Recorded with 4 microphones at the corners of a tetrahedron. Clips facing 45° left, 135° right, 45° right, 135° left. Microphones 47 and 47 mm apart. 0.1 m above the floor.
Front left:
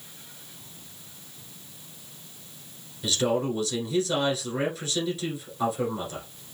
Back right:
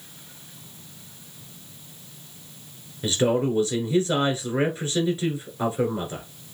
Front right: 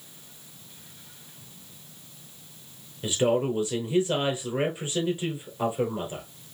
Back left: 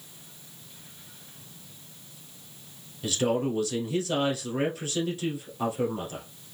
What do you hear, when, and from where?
3.0 s a man speaking: 100° right, 1.4 m